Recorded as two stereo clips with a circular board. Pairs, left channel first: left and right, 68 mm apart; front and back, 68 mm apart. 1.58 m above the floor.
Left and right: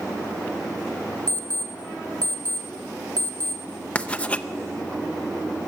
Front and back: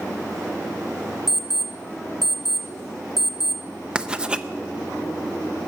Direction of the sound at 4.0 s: 125° left.